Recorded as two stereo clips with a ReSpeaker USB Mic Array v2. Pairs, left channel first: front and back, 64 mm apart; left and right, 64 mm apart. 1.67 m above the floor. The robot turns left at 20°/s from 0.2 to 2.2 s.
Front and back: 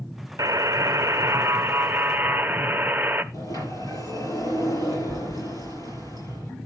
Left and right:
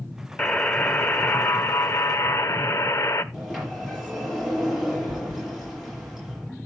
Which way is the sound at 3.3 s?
Straight ahead.